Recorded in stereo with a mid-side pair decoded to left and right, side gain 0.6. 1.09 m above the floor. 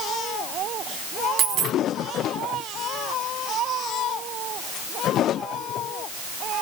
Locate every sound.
1.4 s a dropped coin: 65° right, 1.2 m